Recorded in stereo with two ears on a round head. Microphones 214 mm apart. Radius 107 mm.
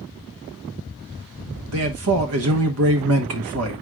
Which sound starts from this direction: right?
A man speaking, at 1.7 s.